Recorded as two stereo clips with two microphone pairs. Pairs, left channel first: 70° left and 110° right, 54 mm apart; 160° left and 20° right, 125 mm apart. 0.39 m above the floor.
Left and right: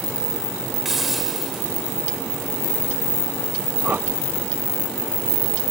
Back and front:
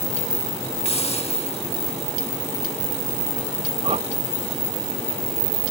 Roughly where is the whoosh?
Ahead right.